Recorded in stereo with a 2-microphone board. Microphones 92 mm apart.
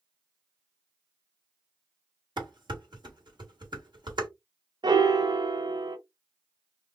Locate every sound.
2.4 s dishes clattering: 60° right (ahead or behind), 1.2 m
4.8 s a piano: 55° right (ahead or behind), 0.6 m